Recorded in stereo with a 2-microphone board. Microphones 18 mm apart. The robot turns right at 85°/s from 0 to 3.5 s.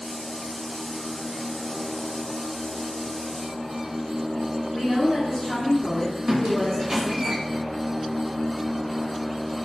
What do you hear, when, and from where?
4.7 s a woman speaking: 40° left (ahead or behind), 1.8 m
6.3 s a squeak: 35° right (ahead or behind), 0.5 m